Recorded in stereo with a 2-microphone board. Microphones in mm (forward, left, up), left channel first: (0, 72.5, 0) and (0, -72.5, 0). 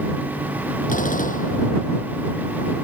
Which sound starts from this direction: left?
A gunshot, at 0.9 s.